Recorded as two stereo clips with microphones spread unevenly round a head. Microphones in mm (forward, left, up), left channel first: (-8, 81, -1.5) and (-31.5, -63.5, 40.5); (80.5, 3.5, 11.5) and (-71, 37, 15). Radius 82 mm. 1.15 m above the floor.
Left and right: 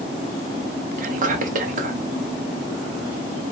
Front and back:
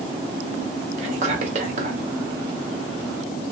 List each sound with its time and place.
1.0 s whispering: 140° right, 0.7 m